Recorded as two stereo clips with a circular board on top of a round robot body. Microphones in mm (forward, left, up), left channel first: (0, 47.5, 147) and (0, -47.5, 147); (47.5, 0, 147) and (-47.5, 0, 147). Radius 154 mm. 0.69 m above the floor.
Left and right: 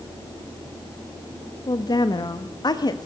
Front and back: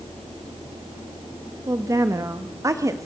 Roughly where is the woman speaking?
Behind left.